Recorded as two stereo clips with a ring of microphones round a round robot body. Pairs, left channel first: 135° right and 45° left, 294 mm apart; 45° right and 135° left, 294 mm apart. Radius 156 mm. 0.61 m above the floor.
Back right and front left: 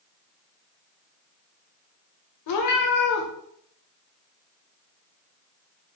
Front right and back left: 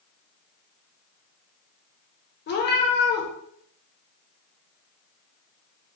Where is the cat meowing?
105° right, 0.6 m.